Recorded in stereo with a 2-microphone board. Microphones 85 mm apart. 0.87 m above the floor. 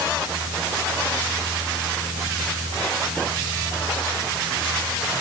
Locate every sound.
Only background noise.